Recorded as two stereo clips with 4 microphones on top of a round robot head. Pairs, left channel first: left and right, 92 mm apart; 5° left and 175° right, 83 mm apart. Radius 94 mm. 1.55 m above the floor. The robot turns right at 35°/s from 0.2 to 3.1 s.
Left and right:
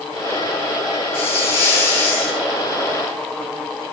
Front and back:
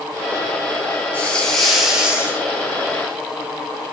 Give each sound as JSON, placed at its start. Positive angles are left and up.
{"t": 1.1, "sound": "a hiss", "azimuth_deg": 80, "distance_m": 3.5}